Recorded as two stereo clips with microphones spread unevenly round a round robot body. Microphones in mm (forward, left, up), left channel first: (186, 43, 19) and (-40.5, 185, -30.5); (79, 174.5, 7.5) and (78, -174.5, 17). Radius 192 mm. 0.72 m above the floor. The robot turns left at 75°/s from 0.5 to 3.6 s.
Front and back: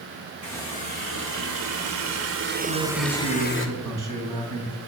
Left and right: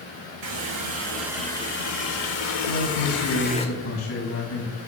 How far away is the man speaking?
About 5 m.